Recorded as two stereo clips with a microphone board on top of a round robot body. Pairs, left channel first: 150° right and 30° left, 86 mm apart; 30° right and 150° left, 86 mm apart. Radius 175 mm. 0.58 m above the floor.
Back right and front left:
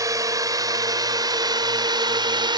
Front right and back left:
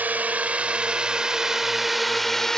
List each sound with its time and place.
0.0 s a drone: 80° left; by 2.6 s 55° left